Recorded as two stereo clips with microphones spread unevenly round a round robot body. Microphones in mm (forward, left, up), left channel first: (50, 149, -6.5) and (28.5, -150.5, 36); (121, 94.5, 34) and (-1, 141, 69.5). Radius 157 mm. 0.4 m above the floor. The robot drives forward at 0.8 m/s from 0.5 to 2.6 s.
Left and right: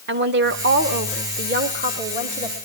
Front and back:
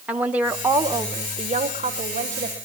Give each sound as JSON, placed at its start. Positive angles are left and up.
{"t": 0.1, "sound": "a woman speaking", "azimuth_deg": -100, "distance_m": 1.1}